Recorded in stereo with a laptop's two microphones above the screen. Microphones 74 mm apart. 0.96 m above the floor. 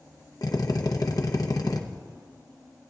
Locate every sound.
0.4 s a drill: 60° left (ahead or behind), 0.9 m